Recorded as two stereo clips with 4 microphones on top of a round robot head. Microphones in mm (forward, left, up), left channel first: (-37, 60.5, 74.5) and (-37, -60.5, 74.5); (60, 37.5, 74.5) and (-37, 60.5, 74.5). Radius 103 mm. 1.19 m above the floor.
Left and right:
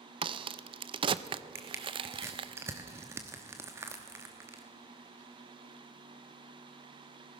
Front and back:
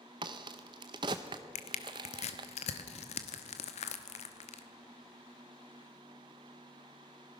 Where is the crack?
135° right, 0.6 m.